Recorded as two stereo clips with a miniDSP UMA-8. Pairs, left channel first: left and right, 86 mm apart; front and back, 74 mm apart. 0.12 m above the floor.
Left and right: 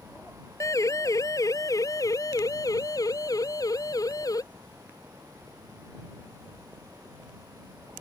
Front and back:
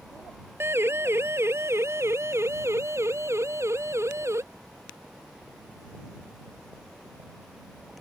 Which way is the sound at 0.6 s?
130° left.